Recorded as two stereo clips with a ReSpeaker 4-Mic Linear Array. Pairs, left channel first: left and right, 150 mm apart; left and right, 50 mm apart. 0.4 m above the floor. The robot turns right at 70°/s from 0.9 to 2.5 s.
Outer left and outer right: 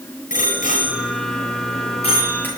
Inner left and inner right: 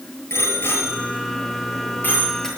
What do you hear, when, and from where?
0.3 s a bicycle bell: 60° left (ahead or behind), 6.5 m; by 2.5 s 10° left (ahead or behind), 6.5 m